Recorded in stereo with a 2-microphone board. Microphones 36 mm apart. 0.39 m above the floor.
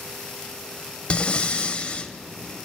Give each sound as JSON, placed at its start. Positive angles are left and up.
{"t": 1.1, "sound": "breathing", "side_deg": 30, "distance_m": 0.7}